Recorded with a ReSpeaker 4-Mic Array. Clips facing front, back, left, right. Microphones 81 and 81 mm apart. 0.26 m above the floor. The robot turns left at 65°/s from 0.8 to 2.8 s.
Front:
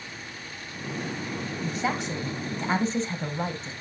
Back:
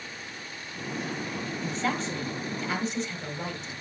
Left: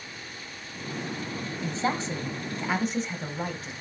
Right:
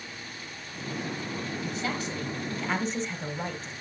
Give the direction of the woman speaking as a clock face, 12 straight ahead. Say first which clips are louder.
Front 1 dB, left 6 dB; 9 o'clock.